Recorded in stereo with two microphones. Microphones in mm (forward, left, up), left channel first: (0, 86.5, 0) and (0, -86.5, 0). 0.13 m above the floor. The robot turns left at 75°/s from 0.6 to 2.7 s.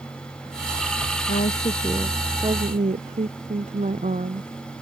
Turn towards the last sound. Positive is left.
turn(degrees=-45)